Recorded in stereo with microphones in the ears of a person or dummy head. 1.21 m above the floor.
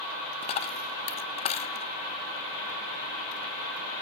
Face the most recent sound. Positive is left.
turn(degrees=35)  # may be behind; listen again after turning